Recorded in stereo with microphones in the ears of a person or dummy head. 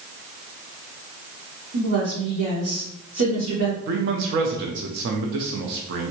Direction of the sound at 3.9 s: 60° right (ahead or behind).